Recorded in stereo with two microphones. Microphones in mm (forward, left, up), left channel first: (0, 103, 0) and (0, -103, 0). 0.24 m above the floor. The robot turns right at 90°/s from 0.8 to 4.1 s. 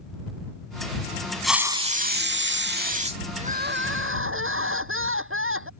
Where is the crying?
150° right; by 5.7 s 85° right.